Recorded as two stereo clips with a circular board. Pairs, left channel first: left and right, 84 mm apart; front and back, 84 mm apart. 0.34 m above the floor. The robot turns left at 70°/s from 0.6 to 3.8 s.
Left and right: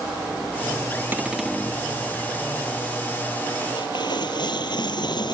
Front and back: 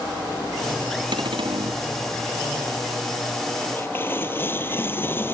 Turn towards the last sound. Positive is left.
turn(degrees=65)